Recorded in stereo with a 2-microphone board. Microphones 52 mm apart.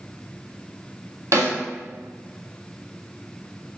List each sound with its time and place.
1.3 s a snare drum: 70° right (ahead or behind), 0.9 m